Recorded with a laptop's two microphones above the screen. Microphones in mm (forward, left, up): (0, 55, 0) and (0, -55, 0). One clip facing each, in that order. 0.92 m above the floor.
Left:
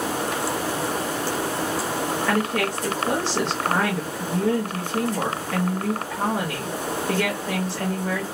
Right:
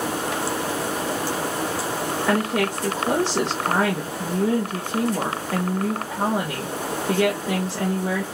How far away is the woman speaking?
About 0.8 m.